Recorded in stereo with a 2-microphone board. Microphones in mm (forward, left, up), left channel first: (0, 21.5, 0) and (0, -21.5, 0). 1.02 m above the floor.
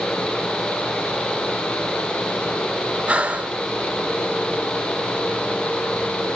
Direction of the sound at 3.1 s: 30° right (ahead or behind).